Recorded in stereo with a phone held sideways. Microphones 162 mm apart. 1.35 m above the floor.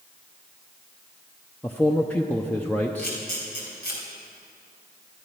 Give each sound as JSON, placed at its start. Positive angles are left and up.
{"t": 1.6, "sound": "a man speaking", "side_deg": 10, "distance_m": 0.6}
{"t": 3.0, "sound": "a camera shutter", "side_deg": 80, "distance_m": 3.5}